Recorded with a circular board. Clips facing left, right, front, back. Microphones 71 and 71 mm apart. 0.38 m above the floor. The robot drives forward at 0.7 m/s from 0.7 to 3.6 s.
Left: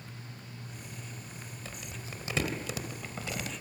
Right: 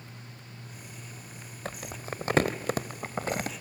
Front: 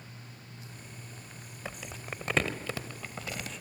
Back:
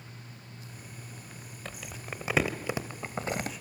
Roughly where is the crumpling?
Right.